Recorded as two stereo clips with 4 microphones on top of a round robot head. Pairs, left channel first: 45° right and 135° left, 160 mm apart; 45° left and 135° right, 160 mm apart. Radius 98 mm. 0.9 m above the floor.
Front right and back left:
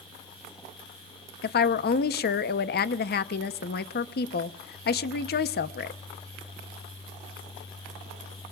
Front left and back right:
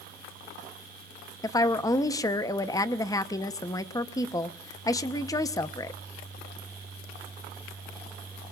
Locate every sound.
1.4 s a woman speaking: 25° right, 0.9 m